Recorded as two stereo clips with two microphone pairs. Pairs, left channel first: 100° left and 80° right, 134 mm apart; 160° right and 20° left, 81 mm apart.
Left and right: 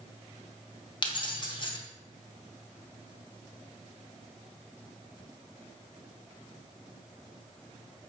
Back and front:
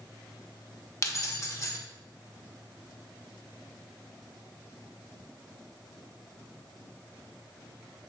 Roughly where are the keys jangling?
Behind left.